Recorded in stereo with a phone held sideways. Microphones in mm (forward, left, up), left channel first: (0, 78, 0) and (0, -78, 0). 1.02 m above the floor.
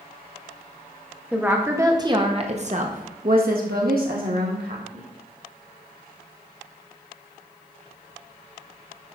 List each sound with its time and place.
1.3 s a woman speaking: 10° right (ahead or behind), 1.6 m; by 5.1 s 65° right (ahead or behind), 2.5 m